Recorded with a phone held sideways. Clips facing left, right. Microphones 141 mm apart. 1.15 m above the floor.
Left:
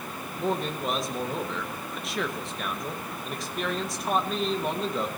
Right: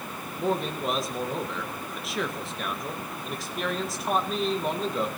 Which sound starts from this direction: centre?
A man speaking, at 0.4 s.